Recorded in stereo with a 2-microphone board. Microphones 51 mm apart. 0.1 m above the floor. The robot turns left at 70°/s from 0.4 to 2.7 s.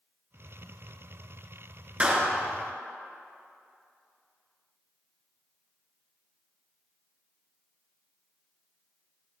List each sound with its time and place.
2.0 s a clap: 25° right (ahead or behind), 1.1 m